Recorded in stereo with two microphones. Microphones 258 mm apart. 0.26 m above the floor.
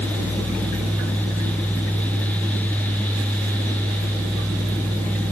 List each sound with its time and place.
Only background noise.